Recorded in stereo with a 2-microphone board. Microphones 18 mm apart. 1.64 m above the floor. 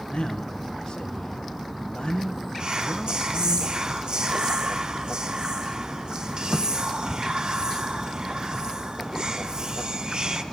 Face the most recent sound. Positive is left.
turn(degrees=-55)  # may be behind; listen again after turning